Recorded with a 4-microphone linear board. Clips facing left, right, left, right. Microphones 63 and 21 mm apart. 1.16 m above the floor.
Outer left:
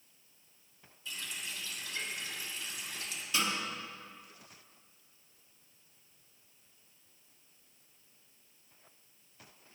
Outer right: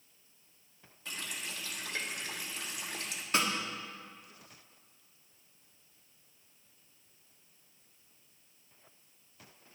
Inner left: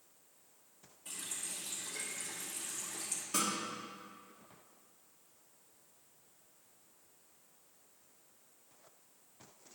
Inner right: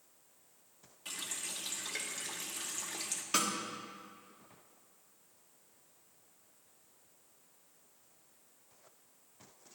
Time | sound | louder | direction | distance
1.1 | a running tap | outer right 1 dB, inner right 3 dB | 65° right (ahead or behind) | 1.2 m
3.3 | a snare drum | outer right 2 dB, inner right 2 dB | 55° right (ahead or behind) | 1.7 m